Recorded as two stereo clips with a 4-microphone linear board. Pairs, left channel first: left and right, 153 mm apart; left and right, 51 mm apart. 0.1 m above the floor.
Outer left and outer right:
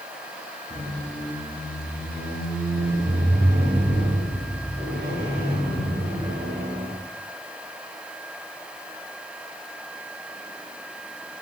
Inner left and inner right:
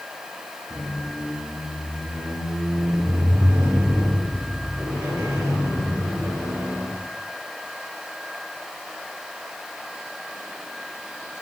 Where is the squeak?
80° right, 6.5 m.